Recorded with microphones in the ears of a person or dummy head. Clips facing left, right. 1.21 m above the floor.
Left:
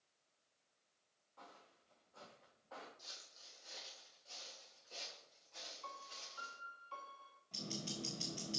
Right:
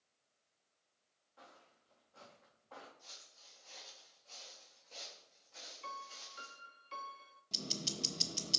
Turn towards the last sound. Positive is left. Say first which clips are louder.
# right 2 dB
turn(degrees=-55)  # may be behind; listen again after turning